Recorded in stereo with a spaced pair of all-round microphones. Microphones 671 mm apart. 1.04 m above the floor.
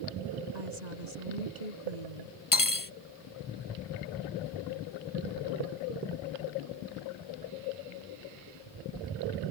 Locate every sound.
0.5 s a woman speaking: 90° right
2.5 s cutlery clinking: 30° left (ahead or behind)